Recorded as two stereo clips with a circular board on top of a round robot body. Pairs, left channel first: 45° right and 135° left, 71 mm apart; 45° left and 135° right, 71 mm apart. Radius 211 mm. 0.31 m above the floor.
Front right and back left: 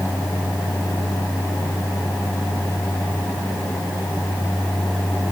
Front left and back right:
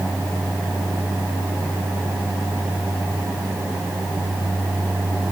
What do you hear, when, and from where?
Only background noise.